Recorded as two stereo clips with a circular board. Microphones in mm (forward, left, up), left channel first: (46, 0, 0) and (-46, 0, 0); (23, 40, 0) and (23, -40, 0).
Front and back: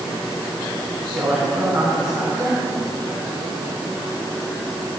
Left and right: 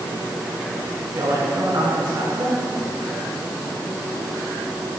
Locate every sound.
1.1 s a man speaking: 95° right, 7.5 m